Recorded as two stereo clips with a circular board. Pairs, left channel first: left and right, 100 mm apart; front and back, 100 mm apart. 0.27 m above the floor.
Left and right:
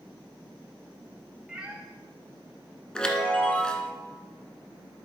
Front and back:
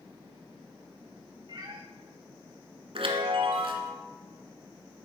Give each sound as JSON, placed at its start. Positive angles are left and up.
{"t": 1.5, "sound": "a cat meowing", "azimuth_deg": -170, "distance_m": 1.1}
{"t": 3.0, "sound": "a chime", "azimuth_deg": 170, "distance_m": 1.0}